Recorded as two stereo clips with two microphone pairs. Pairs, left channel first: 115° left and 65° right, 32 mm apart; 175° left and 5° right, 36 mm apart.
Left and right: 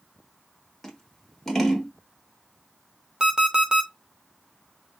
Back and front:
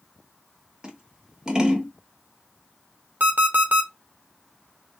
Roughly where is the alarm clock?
Ahead.